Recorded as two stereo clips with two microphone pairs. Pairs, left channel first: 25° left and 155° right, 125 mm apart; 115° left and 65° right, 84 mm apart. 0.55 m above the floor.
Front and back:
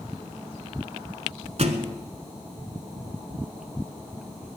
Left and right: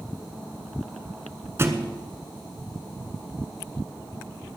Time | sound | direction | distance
1.6 | a thud | 120° right | 1.2 m